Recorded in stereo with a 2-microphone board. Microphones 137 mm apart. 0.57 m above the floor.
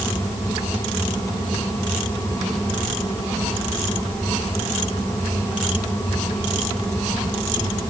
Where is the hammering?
No hammering in this recording.